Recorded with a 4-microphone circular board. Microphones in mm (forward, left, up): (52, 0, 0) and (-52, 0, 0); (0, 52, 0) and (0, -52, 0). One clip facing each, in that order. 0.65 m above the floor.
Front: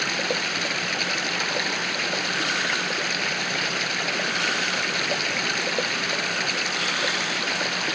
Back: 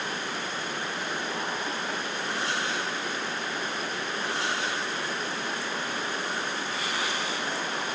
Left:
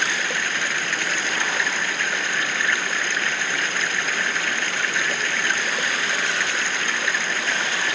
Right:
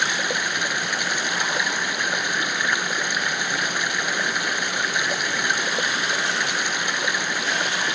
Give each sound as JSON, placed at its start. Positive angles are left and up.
{"t": 0.0, "sound": "running water", "azimuth_deg": -15}